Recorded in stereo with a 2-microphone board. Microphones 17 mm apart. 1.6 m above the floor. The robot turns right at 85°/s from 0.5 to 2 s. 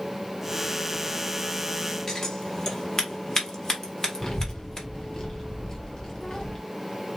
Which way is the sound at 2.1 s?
40° left (ahead or behind).